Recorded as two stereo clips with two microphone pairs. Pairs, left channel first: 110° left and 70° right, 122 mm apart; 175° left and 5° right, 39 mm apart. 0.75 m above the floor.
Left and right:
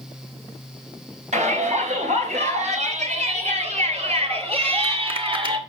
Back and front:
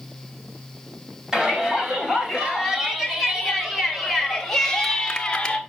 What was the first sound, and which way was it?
A shout, 80° right.